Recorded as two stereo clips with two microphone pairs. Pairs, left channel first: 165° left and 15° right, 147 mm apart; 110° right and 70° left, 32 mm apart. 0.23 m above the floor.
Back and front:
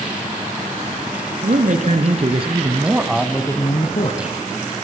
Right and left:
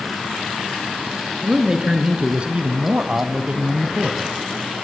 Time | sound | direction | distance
1.4 | a man speaking | 5° left | 2.5 m